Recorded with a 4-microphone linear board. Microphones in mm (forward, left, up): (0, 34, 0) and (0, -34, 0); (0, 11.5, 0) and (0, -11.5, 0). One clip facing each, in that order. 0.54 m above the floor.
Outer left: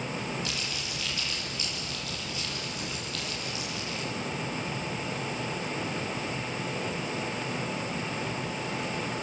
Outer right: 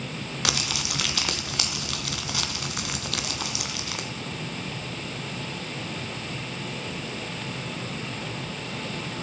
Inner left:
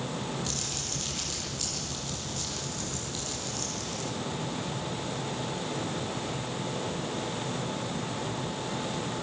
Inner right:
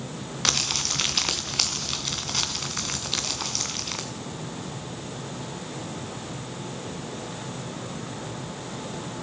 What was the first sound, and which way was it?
Crumpling, 80° right.